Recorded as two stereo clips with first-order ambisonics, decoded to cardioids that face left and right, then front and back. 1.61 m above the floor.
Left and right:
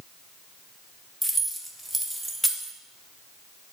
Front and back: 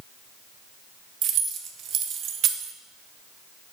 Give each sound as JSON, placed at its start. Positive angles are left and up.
{"t": 1.2, "sound": "keys jangling", "azimuth_deg": -175, "distance_m": 0.6}